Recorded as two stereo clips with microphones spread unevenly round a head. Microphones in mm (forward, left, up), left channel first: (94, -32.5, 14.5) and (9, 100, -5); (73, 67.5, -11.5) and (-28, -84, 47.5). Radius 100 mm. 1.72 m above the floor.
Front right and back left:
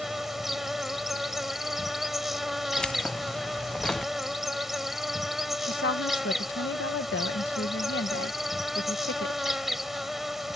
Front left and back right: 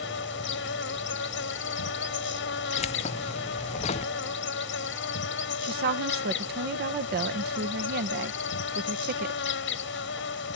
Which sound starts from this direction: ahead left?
An insect, at 0.0 s.